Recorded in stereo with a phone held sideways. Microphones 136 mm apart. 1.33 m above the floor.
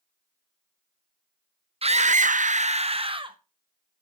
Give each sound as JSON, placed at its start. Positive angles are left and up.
{"t": 1.8, "sound": "a scream", "side_deg": -45, "distance_m": 0.6}